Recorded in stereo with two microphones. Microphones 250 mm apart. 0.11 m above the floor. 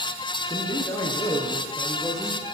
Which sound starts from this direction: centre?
A man speaking, at 0.5 s.